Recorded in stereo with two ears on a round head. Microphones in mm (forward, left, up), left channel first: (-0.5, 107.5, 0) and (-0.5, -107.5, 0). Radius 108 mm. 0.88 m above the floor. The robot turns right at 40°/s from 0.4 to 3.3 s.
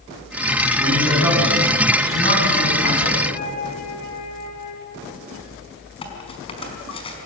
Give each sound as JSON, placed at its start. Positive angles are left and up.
{"t": 0.8, "sound": "a man speaking", "azimuth_deg": -25, "distance_m": 9.0}
{"t": 3.3, "sound": "a flute", "side_deg": 85, "distance_m": 7.0}
{"t": 6.0, "sound": "cutlery clinking", "side_deg": 25, "distance_m": 5.0}